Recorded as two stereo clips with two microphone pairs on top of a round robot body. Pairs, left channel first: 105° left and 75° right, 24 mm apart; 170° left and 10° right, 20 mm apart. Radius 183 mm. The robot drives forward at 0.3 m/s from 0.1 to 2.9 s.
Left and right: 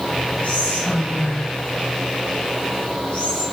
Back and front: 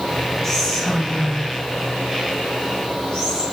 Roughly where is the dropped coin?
I don't hear a dropped coin.